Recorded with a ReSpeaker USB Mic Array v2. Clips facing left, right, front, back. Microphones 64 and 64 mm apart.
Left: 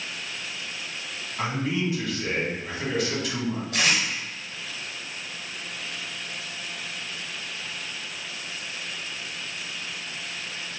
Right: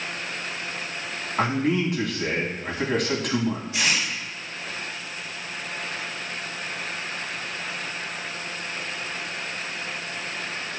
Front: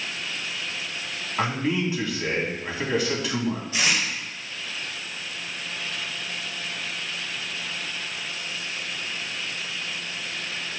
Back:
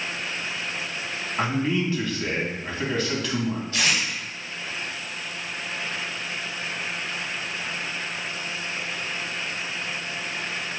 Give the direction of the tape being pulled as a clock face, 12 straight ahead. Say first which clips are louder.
Left 4 dB, even; 9 o'clock.